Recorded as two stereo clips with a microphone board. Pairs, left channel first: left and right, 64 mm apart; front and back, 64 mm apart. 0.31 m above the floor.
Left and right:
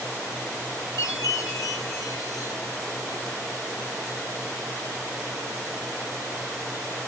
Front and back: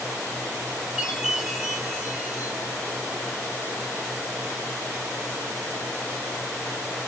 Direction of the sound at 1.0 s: 105° left.